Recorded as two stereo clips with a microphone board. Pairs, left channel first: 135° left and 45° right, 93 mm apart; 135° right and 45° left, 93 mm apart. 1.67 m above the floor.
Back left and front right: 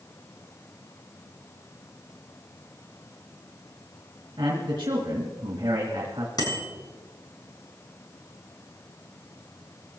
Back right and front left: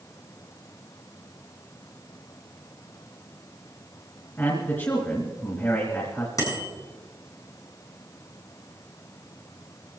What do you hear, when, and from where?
4.4 s a man speaking: 75° right, 2.5 m
6.4 s a bicycle bell: 175° left, 6.5 m